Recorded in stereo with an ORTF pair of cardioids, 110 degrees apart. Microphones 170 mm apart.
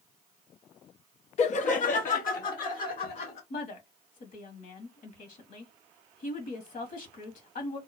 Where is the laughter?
40° left, 0.5 m; by 3.4 s 60° left, 1.9 m.